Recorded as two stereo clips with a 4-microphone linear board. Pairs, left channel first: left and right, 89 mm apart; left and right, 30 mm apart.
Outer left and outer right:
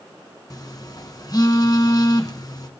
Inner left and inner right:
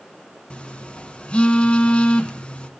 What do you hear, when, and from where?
0.5 s a phone buzzing: 45° left (ahead or behind), 1.8 m